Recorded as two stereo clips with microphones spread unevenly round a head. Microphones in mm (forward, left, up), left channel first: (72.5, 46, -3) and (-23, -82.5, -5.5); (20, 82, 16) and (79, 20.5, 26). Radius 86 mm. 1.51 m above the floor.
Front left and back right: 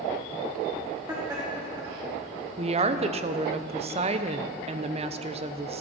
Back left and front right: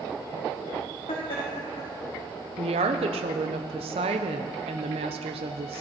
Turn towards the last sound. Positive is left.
turn(degrees=-75)